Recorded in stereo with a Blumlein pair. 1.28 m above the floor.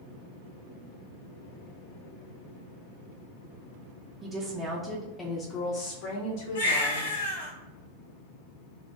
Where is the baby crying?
60° left, 1.4 m.